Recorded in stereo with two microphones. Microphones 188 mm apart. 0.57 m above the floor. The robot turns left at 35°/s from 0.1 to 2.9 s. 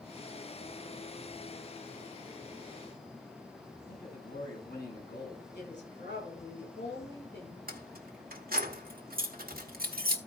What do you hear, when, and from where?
3.9 s a man speaking: 70° left (ahead or behind), 5 m
5.5 s a woman speaking: 80° left, 7.5 m
7.7 s keys jangling: 55° right (ahead or behind), 1.1 m